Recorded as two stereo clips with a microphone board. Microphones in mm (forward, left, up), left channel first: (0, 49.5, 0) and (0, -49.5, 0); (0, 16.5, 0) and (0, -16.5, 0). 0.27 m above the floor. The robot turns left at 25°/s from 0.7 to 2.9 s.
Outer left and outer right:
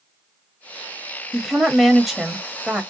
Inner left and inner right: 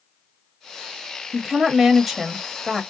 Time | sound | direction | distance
1.3 | a woman speaking | 5° left (ahead or behind) | 0.9 m